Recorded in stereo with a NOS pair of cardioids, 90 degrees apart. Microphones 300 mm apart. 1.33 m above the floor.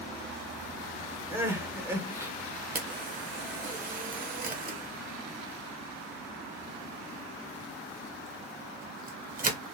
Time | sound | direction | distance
1.3 | crying | 10° right | 0.6 m
2.8 | a camera shutter | 30° right | 0.8 m